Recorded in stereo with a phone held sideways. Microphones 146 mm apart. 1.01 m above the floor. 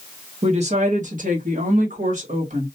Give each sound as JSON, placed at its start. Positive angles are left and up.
{"t": 0.4, "sound": "a woman speaking", "side_deg": -50, "distance_m": 1.1}